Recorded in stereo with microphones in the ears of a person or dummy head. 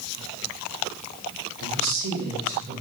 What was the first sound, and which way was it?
A woman speaking, 75° right (ahead or behind).